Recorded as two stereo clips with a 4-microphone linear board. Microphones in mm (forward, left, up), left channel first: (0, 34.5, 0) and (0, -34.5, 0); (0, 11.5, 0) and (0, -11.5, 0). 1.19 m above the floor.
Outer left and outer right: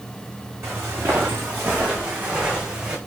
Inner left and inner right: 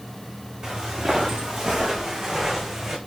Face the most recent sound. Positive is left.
turn(degrees=-15)  # may be behind; listen again after turning